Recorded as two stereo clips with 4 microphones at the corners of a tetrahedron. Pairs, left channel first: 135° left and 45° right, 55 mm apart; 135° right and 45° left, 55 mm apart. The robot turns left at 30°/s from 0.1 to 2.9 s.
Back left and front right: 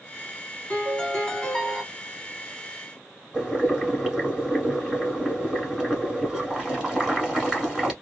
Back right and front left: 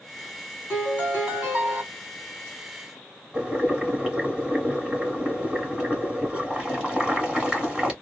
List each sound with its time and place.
0.7 s a piano: 80° left, 1.7 m; by 1.8 s 45° left, 1.7 m
3.3 s boiling: 5° left, 1.6 m